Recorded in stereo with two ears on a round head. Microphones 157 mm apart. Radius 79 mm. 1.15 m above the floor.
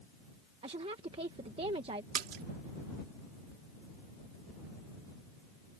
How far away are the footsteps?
I don't hear footsteps.